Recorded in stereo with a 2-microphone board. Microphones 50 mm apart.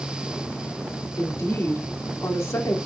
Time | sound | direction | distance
1.2 | a woman speaking | 85° left | 2 m